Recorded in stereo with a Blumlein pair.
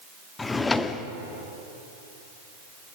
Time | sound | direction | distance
0.4 | a drawer | 10° left | 1.1 m